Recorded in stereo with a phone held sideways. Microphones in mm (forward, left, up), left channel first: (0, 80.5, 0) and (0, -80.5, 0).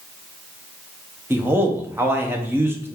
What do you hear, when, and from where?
1.3 s a man speaking: 15° right (ahead or behind), 0.6 m